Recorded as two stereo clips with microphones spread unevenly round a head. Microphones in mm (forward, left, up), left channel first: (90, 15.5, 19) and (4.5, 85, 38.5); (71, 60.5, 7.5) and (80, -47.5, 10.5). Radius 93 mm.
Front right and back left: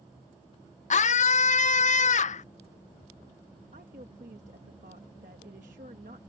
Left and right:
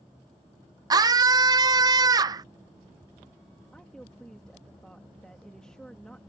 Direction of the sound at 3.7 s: Straight behind.